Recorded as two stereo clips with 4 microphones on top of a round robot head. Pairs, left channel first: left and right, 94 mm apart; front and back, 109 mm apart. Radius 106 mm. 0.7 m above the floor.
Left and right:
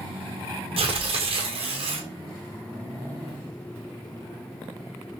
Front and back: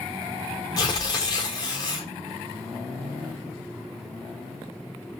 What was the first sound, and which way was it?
Tearing paper, 60° right.